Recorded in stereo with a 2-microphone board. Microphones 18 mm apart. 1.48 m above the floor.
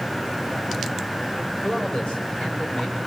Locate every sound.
1.6 s a man speaking: 65° left (ahead or behind), 7 m